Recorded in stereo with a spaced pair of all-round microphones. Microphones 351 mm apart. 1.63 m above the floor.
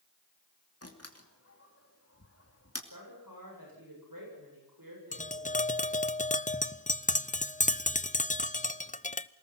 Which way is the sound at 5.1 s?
20° left (ahead or behind).